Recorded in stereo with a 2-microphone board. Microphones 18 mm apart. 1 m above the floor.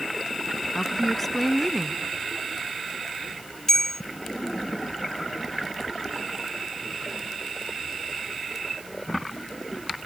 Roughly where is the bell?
Centre.